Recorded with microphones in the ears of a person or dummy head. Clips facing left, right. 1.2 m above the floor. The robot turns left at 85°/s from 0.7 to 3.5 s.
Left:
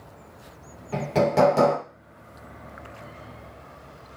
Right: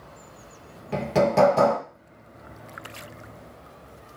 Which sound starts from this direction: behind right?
Hammering, at 0.9 s.